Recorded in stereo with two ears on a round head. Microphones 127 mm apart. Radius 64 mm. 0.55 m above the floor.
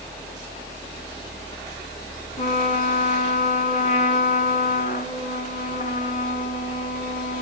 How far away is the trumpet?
About 1.7 m.